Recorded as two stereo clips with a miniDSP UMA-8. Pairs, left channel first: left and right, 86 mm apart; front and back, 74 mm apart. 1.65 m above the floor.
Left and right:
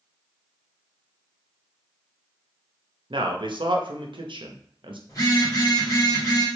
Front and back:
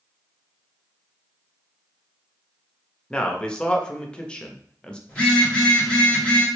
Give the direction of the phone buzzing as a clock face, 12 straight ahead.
10 o'clock.